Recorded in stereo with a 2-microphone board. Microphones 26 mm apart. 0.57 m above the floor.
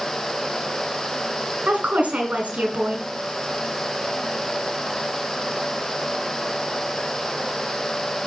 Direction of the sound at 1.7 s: 75° right (ahead or behind).